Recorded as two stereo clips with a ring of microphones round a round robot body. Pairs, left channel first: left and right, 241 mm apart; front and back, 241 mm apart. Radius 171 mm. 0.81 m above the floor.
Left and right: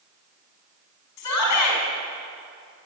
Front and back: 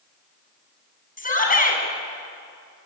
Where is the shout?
55° left, 7 m.